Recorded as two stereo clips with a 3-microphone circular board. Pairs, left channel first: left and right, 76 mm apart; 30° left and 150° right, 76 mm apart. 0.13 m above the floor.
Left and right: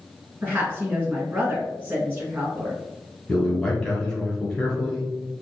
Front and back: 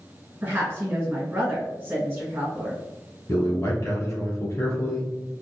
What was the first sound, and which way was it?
A woman speaking, 125° right.